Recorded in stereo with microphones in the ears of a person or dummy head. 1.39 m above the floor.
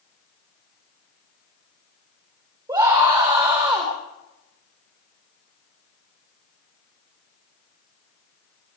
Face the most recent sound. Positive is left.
turn(degrees=-15)  # may be behind; listen again after turning